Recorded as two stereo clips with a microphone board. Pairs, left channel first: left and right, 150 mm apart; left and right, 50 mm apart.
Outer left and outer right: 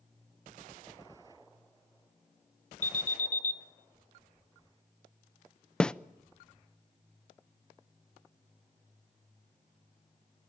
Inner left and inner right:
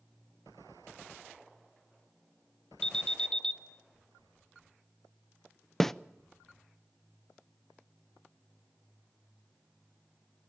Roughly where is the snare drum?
Centre.